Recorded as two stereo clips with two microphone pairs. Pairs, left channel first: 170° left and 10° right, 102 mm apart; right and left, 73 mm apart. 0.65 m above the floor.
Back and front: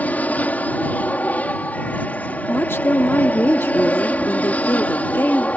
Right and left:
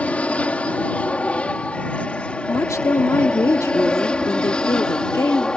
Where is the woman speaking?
125° right.